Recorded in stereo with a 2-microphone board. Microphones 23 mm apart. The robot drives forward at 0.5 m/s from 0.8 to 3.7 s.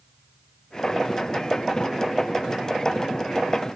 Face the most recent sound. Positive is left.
No sound to turn to.